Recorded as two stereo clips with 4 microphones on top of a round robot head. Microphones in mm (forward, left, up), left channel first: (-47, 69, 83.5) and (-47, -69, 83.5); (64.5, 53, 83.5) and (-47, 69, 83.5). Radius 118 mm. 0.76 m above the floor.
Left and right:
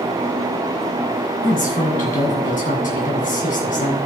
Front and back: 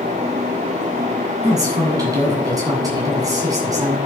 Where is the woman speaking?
115° left, 8 m.